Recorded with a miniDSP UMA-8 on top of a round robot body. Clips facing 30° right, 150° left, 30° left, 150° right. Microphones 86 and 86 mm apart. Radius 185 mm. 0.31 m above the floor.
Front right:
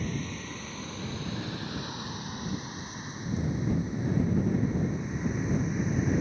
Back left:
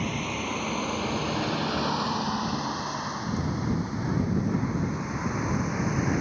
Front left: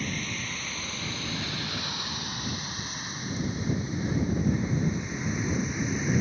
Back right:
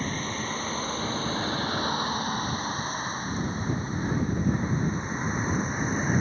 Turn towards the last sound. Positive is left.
turn(degrees=160)